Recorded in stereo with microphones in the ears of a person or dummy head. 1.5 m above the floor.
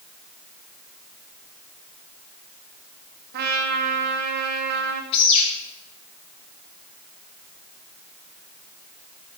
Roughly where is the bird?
Left.